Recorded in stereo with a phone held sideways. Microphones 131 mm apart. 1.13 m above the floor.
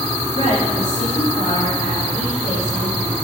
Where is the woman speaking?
65° left (ahead or behind), 2.5 m; by 3.1 s 85° left, 5.5 m.